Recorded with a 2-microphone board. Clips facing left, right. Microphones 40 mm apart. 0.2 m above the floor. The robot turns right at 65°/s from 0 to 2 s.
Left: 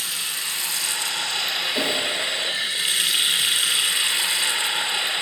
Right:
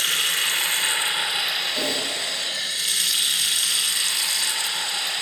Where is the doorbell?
I don't hear a doorbell.